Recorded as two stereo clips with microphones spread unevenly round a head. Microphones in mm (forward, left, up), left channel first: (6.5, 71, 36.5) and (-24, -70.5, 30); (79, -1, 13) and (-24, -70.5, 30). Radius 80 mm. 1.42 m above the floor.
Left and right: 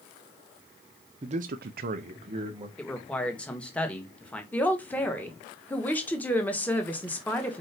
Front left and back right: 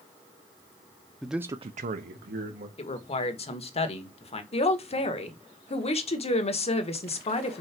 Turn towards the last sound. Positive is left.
turn(degrees=0)